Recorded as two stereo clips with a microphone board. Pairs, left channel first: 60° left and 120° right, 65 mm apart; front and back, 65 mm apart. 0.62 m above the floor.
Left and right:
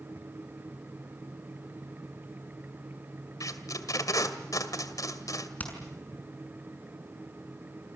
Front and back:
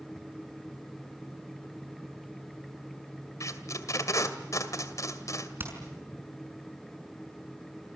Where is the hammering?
125° left, 6 m.